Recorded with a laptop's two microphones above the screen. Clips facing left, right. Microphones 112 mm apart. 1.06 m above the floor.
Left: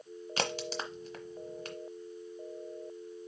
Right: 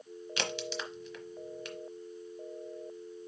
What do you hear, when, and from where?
0.4 s a crack: 40° left (ahead or behind), 1.1 m